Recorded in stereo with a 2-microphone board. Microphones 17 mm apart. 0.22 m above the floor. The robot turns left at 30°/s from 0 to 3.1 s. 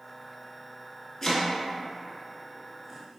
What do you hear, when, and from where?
1.2 s chopping: 25° left (ahead or behind), 0.6 m; by 3.2 s 30° right (ahead or behind), 0.6 m